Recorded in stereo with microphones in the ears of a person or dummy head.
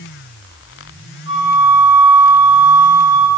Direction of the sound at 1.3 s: 60° right (ahead or behind).